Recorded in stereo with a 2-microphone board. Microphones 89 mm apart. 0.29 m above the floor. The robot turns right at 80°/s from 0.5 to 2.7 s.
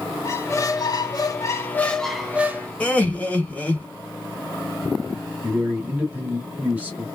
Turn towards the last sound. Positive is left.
turn(degrees=-15)  # may be behind; listen again after turning